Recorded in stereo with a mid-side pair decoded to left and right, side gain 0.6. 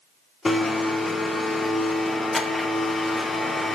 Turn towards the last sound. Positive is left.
turn(degrees=15)